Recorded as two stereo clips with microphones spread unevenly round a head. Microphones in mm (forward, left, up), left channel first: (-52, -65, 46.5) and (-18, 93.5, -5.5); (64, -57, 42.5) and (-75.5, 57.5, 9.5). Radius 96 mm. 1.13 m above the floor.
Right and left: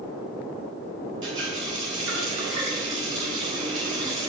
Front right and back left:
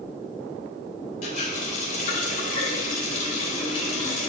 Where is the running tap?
10° left, 3 m.